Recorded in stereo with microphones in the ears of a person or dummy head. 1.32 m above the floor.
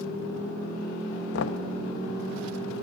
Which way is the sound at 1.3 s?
75° left (ahead or behind).